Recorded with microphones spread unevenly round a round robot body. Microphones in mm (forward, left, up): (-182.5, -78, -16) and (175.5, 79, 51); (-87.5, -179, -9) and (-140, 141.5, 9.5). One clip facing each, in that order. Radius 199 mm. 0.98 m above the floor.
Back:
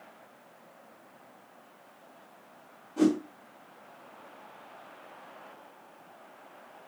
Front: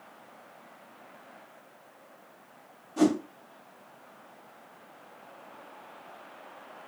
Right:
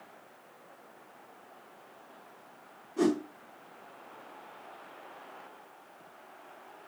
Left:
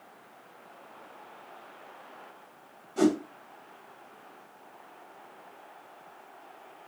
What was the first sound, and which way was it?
A whoosh, 90° left.